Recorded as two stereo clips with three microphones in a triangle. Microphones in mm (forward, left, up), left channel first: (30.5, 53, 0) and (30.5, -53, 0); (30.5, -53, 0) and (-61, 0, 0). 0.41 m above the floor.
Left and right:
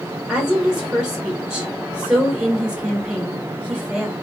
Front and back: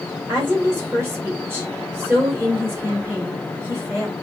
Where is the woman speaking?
165° right, 1.4 m.